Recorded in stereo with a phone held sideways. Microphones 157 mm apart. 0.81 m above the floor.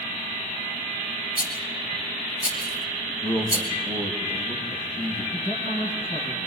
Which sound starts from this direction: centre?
A man speaking, at 3.1 s.